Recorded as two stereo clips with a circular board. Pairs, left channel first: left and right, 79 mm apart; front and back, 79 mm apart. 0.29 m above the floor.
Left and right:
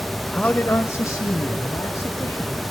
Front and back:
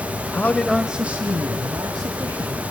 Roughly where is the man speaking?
Ahead left.